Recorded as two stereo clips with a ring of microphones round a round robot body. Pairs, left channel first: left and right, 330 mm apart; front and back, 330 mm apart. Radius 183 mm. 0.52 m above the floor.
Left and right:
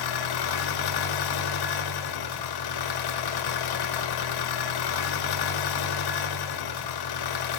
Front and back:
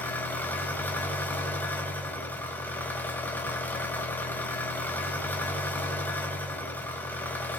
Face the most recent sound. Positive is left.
turn(degrees=85)